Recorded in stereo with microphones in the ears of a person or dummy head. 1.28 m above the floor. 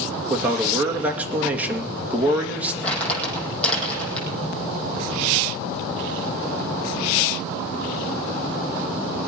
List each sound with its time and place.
0.3 s a man speaking: 10° right (ahead or behind), 2 m
2.8 s crumpling: 10° left (ahead or behind), 7 m